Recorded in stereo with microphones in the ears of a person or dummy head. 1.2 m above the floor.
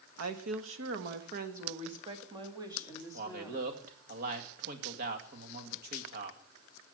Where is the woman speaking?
80° right, 1.8 m; by 3.8 s 10° right (ahead or behind), 3 m.